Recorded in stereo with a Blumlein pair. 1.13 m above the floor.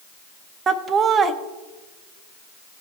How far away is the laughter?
About 0.6 m.